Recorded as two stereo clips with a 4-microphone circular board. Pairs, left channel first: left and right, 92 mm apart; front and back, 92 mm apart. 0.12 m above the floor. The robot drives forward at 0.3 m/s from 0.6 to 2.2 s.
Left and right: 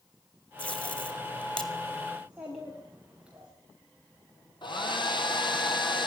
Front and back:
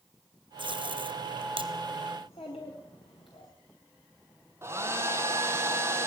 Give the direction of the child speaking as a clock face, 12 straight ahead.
12 o'clock.